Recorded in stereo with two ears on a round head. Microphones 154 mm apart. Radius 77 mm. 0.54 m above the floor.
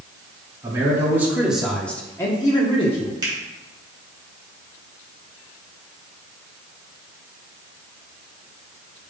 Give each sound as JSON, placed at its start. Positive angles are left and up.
{"t": 0.6, "sound": "a man speaking", "side_deg": -20, "distance_m": 1.5}
{"t": 3.2, "sound": "a finger snap", "side_deg": -25, "distance_m": 3.0}